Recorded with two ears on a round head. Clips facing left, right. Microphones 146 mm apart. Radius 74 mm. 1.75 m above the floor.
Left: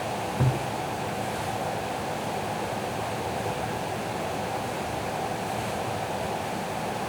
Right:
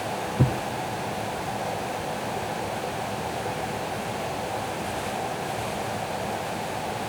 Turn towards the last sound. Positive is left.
turn(degrees=-35)  # may be behind; listen again after turning